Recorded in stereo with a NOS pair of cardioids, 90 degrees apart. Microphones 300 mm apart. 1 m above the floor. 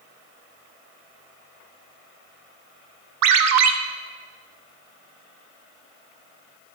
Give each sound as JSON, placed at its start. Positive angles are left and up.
{"t": 3.2, "sound": "a ringtone", "azimuth_deg": -65, "distance_m": 0.6}